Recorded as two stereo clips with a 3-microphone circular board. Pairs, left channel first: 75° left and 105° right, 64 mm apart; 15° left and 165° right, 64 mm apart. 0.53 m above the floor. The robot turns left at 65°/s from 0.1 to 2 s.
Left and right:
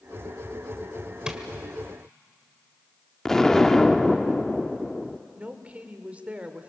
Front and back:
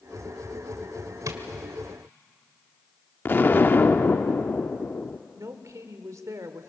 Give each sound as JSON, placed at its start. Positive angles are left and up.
{"t": 1.3, "sound": "tapping", "azimuth_deg": 180, "distance_m": 1.6}
{"t": 3.2, "sound": "an explosion", "azimuth_deg": 0, "distance_m": 0.6}
{"t": 5.3, "sound": "a woman speaking", "azimuth_deg": -165, "distance_m": 1.5}